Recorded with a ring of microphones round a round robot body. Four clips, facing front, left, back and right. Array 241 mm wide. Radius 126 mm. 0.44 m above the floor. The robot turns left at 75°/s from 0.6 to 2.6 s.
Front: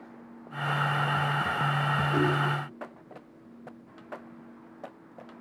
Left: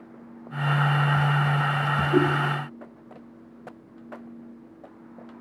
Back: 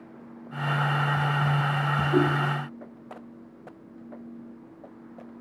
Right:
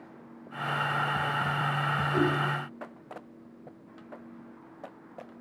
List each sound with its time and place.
2.1 s a whoosh: 135° left, 4 m; by 2.3 s 120° left, 4 m